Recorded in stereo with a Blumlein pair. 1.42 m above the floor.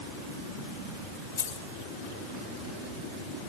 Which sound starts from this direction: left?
Keys jangling, at 1.4 s.